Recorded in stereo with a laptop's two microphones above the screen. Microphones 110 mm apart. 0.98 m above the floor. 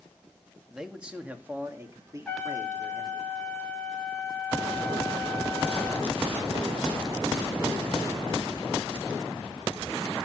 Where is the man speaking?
5° right (ahead or behind), 1.8 m; by 3.2 s 40° right (ahead or behind), 3 m.